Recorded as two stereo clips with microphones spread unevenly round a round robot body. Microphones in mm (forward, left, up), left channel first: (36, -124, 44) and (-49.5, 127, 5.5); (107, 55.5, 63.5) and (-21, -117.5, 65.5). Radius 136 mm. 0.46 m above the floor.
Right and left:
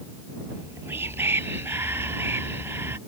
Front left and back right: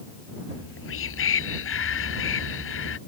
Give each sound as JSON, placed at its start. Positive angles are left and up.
{"t": 0.5, "sound": "whispering", "azimuth_deg": 25}